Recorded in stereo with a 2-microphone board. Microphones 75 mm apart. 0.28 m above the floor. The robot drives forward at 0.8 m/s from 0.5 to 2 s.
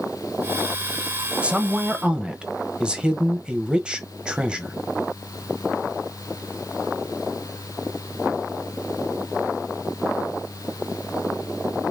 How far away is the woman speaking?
About 0.9 m.